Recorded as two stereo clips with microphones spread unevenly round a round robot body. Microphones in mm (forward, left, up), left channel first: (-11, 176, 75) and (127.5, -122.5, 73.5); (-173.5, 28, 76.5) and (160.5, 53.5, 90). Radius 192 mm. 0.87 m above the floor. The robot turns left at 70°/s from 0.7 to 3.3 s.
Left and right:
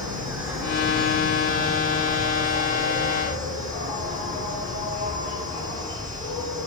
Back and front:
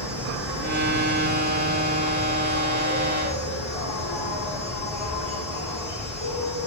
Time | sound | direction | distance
0.0 | an insect | 20° left | 7.5 m